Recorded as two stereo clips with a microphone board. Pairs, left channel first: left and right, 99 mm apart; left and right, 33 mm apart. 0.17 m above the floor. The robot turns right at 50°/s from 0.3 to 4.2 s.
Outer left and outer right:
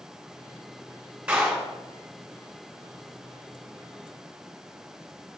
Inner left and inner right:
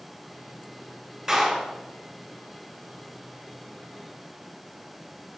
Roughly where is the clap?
Centre.